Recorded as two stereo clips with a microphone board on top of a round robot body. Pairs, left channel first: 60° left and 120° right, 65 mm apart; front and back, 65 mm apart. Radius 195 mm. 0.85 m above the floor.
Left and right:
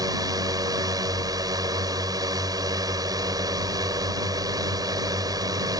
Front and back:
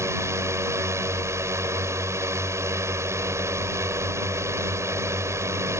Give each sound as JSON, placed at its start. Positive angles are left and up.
{"t": 0.0, "sound": "a drone", "azimuth_deg": -135}